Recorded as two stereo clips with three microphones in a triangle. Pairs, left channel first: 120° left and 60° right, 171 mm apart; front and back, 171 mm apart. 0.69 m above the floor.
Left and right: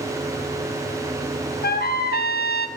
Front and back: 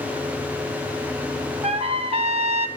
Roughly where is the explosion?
No explosion in this recording.